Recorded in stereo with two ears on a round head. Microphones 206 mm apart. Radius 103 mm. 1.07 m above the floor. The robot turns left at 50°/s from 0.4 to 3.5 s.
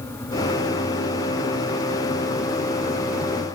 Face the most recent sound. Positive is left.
No sound to turn to.